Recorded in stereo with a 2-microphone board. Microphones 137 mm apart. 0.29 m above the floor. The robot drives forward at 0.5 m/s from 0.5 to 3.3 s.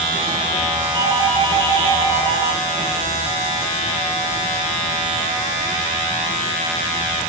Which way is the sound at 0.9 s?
35° right (ahead or behind).